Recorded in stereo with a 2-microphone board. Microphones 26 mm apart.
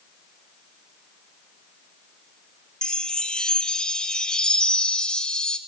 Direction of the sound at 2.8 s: 35° left (ahead or behind).